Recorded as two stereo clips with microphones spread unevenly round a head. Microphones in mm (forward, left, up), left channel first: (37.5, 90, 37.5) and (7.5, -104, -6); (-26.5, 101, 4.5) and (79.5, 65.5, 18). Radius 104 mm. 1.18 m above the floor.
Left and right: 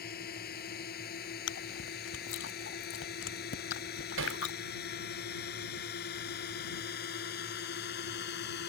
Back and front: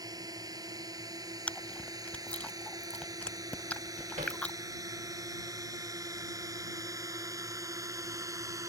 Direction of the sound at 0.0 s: 40° left.